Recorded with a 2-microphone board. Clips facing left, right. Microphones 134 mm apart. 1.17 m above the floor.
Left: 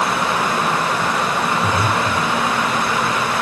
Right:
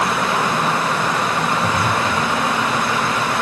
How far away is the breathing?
About 4.5 m.